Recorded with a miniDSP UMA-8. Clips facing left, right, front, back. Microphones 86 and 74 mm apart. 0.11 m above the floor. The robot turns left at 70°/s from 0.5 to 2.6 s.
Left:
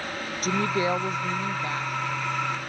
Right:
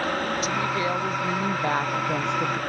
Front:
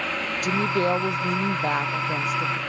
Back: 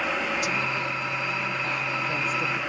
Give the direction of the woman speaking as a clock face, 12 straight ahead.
11 o'clock.